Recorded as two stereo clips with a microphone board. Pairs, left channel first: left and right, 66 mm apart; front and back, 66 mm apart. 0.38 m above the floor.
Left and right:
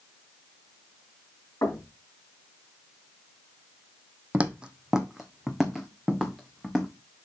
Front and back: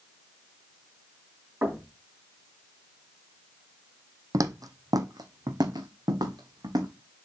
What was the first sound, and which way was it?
Knocking, 125° left.